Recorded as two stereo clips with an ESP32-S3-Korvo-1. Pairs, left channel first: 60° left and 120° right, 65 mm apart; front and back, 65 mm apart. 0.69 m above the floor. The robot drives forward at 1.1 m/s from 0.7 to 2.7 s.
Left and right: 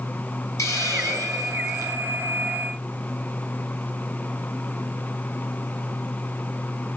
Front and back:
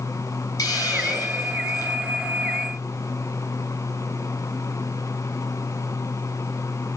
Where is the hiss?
25° left, 6.5 m; by 2.0 s 30° left, 5 m.